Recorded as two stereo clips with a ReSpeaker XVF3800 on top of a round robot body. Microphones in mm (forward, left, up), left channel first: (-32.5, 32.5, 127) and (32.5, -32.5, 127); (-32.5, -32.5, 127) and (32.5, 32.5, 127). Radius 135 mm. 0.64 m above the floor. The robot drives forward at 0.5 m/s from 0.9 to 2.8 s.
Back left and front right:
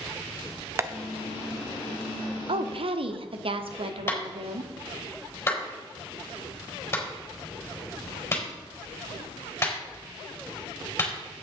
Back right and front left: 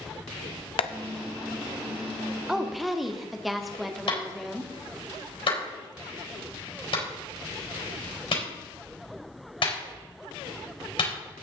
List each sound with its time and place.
0.8 s tapping: 110° right, 0.6 m
2.5 s a woman speaking: 40° right, 1.4 m; by 4.7 s 45° right, 1.3 m
4.1 s a clap: 160° right, 4.5 m